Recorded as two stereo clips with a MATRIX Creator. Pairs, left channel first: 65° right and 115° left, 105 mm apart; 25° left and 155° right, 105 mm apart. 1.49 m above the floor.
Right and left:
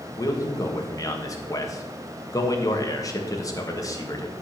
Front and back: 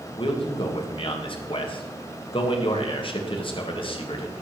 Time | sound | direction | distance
0.2 | a man speaking | 10° right | 1.7 m